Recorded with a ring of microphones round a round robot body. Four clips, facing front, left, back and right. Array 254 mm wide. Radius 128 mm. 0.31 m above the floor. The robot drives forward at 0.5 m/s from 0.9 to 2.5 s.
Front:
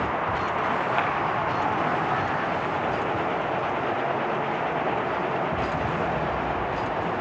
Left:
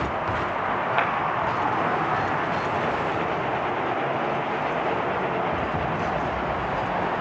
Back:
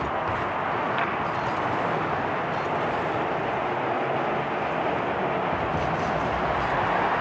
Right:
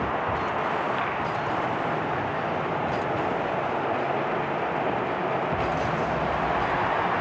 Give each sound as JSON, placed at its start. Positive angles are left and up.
{"t": 1.0, "sound": "a clap", "azimuth_deg": 70, "distance_m": 8.0}